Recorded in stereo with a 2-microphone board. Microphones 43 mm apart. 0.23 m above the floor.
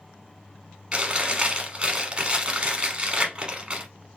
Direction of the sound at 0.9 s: 25° right (ahead or behind).